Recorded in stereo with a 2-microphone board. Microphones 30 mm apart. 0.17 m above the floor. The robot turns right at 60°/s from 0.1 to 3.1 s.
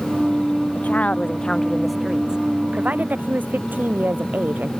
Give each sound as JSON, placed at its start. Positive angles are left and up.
{"t": 0.8, "sound": "a woman speaking", "azimuth_deg": 115}